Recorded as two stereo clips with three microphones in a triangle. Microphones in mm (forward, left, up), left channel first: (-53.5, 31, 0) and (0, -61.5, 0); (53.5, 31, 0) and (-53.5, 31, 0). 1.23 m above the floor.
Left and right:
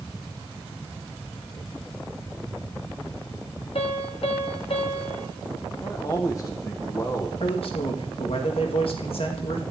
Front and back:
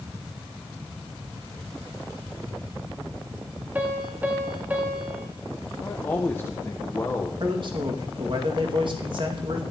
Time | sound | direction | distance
3.8 | a piano | 105° left | 1.5 m
5.8 | a man speaking | 70° left | 1.1 m
7.4 | a man speaking | 145° left | 2 m